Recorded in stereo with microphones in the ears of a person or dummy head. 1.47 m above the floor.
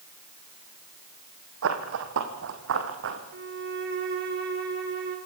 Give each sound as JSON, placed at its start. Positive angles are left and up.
{"t": 1.6, "sound": "running footsteps", "side_deg": -70, "distance_m": 4.0}
{"t": 3.3, "sound": "a violin", "side_deg": -55, "distance_m": 5.5}